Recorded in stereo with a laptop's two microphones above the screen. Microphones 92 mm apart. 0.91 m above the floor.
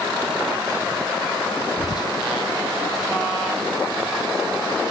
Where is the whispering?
50° left (ahead or behind), 0.6 m.